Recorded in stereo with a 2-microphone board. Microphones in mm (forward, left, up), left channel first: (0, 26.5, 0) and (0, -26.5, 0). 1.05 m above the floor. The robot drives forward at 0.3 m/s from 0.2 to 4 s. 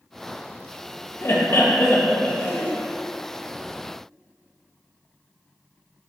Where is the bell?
I don't hear a bell.